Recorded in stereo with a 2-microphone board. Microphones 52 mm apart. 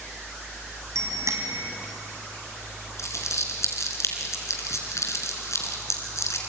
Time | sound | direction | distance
0.9 | a bicycle bell | 80° right | 4.5 m
3.0 | crumpling | 75° left (ahead or behind) | 3.5 m